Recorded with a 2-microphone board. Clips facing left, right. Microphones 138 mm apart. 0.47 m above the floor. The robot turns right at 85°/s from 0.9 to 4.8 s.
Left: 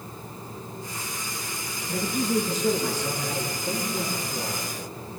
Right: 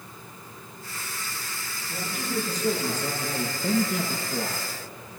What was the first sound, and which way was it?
A man speaking, 110° left.